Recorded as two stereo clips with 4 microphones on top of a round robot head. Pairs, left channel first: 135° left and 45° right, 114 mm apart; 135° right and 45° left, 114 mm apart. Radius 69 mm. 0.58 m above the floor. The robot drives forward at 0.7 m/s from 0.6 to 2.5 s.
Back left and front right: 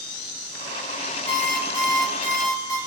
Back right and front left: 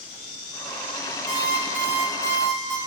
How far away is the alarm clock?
About 4 m.